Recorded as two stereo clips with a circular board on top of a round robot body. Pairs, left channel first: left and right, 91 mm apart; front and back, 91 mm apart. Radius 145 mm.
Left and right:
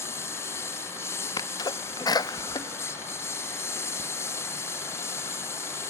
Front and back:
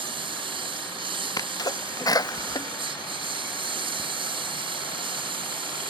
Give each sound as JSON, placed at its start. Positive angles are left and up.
{"t": 0.0, "sound": "a lawn mower", "azimuth_deg": 150}
{"t": 1.4, "sound": "a sneeze", "azimuth_deg": 45}